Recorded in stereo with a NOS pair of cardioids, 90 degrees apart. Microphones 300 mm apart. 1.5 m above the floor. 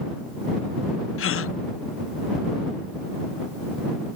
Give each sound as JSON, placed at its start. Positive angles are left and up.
{"t": 1.2, "sound": "a gasp", "azimuth_deg": 45}